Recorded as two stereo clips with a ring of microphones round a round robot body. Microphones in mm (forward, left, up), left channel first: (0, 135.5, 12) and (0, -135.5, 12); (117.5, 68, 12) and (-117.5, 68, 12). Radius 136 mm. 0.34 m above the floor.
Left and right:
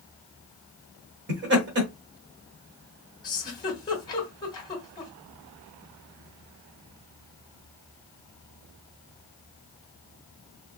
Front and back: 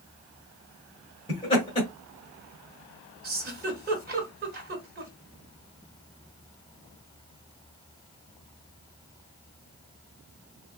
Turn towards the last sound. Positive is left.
turn(degrees=155)